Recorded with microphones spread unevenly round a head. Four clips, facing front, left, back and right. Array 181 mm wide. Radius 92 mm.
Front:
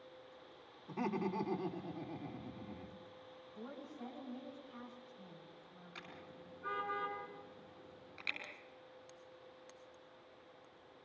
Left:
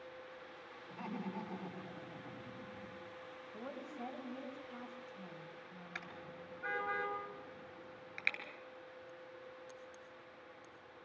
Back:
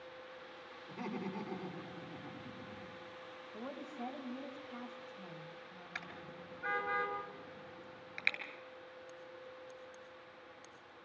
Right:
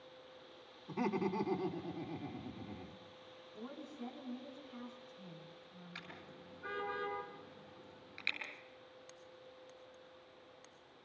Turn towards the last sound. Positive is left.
turn(degrees=160)